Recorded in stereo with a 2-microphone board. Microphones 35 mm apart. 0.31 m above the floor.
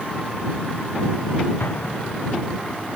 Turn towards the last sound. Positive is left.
turn(degrees=60)  # may be behind; listen again after turning